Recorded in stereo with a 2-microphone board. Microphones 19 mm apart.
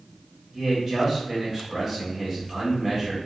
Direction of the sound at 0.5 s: 20° right (ahead or behind).